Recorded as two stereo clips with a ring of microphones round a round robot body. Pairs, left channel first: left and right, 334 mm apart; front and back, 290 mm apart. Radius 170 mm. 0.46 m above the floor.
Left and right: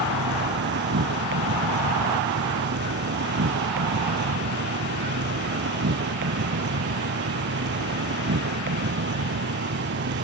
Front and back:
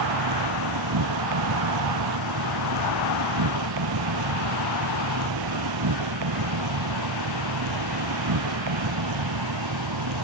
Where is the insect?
150° right.